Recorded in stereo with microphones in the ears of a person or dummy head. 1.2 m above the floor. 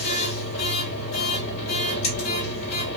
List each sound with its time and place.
0.0 s a machine running: 40° left (ahead or behind), 2.5 m